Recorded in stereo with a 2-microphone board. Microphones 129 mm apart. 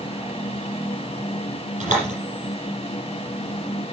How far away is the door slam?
About 8 m.